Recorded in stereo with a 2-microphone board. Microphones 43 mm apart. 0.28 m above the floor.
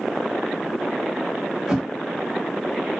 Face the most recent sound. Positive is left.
turn(degrees=-10)  # may be behind; listen again after turning